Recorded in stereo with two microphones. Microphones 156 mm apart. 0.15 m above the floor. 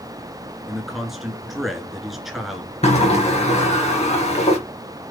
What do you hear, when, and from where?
0.7 s a man speaking: centre (ahead or behind), 1.9 m
2.8 s a sliding door: 45° left (ahead or behind), 3 m